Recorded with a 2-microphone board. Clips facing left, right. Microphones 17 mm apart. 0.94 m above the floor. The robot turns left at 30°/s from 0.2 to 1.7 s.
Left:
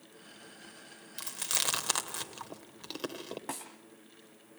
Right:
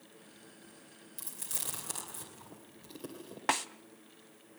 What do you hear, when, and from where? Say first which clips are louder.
1.2 s chewing: left 10 dB; 45° left (ahead or behind), 2.5 m; by 3.4 s 60° left (ahead or behind), 2.5 m
3.5 s a snare drum: right 13 dB; 50° right (ahead or behind), 1.1 m